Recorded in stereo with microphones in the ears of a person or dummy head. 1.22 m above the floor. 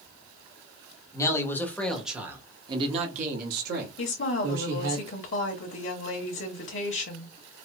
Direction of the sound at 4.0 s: 55° left (ahead or behind).